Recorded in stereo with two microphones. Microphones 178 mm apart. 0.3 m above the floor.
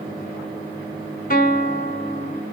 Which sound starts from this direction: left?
A guitar, at 1.3 s.